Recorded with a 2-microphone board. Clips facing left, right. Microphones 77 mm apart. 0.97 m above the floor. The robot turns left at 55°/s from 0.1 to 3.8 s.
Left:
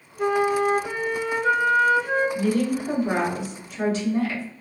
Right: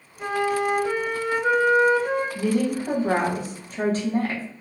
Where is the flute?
55° left, 0.5 m; by 2.2 s 55° right, 0.5 m.